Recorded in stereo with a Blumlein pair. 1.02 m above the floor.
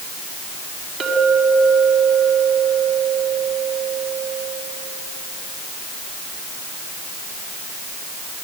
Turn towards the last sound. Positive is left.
turn(degrees=-30)